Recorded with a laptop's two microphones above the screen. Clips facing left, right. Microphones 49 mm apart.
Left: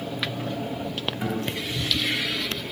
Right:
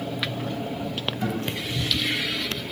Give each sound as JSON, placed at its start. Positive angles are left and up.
{"t": 1.2, "sound": "a guitar", "side_deg": 20, "distance_m": 3.5}